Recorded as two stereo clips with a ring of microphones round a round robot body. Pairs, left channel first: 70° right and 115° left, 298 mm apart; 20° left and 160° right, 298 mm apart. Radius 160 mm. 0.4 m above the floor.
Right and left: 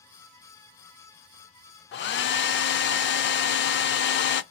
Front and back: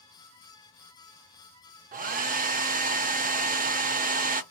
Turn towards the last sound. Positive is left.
turn(degrees=-105)